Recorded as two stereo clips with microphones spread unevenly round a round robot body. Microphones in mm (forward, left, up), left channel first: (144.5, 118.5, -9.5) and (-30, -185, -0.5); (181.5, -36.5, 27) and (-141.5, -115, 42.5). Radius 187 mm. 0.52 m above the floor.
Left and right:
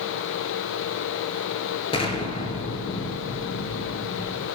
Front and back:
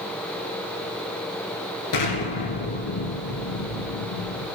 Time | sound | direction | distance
1.9 | an explosion | 15° right | 3.5 m